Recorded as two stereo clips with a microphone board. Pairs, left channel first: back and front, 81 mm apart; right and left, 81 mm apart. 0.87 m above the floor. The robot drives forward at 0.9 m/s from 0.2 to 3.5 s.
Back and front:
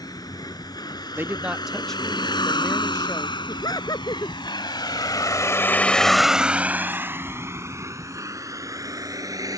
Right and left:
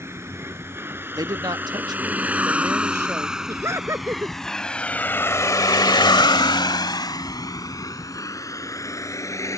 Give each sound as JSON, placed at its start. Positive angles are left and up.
{"t": 0.0, "sound": "a vehicle", "azimuth_deg": 145}
{"t": 1.1, "sound": "a man speaking", "azimuth_deg": 60}
{"t": 3.5, "sound": "laughter", "azimuth_deg": 145}